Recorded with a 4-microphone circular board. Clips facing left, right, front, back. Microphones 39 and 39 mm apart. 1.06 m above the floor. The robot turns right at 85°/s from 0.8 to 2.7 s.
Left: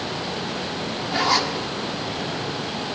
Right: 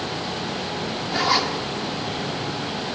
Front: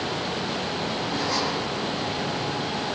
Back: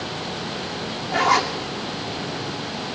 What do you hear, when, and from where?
1.1 s a zipper: 170° left, 2.5 m; by 1.5 s 155° right, 2.5 m